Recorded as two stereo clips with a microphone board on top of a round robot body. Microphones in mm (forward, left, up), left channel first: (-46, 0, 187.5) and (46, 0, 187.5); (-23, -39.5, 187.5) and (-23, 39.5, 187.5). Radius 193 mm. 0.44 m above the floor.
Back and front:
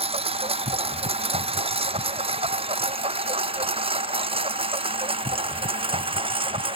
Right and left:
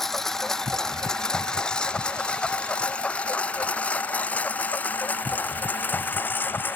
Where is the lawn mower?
5° right; by 6.8 s 20° right.